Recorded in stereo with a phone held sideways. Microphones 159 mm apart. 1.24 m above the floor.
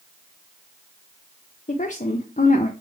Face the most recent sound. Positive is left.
turn(degrees=50)  # may be behind; listen again after turning